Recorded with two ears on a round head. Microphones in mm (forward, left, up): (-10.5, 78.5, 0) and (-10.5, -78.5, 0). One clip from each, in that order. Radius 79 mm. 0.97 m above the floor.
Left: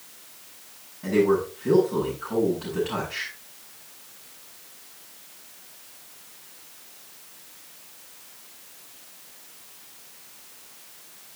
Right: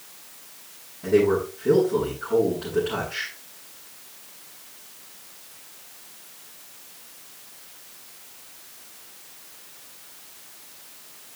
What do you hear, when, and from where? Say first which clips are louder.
1.0 s a man speaking: right 1 dB; 60° left (ahead or behind), 7.5 m